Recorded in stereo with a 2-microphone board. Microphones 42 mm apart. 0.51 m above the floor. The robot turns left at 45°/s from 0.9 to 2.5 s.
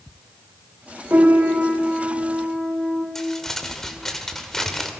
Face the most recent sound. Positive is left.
turn(degrees=5)  # may be behind; listen again after turning